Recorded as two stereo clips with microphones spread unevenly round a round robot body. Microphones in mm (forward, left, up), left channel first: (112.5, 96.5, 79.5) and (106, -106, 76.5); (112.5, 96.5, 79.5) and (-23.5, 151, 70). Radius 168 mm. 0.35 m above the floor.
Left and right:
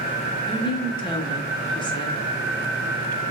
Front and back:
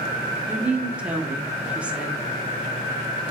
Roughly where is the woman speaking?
Left.